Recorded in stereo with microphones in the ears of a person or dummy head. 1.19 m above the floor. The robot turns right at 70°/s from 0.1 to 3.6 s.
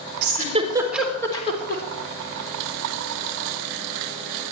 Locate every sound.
0.2 s a giggle: 60° right (ahead or behind), 3.5 m; by 1.8 s 55° left (ahead or behind), 3.5 m